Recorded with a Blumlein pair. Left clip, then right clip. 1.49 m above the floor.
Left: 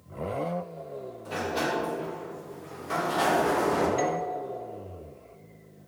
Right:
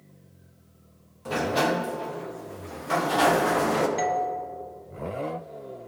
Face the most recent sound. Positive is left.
turn(degrees=-5)